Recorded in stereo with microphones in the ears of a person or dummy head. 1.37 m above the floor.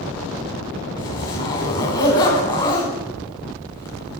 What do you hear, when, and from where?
1.0 s a zipper: 25° left (ahead or behind), 1.6 m